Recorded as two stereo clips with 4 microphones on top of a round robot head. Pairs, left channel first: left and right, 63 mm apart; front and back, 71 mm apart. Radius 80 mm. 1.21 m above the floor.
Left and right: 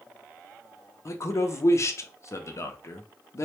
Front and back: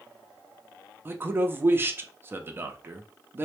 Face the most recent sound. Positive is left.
turn(degrees=125)